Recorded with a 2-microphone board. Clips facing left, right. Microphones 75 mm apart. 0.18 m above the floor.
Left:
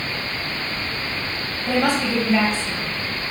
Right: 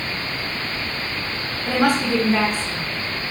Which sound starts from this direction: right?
A woman speaking, at 1.7 s.